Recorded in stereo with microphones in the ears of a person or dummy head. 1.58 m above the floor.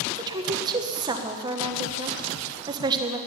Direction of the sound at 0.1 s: 20° right (ahead or behind).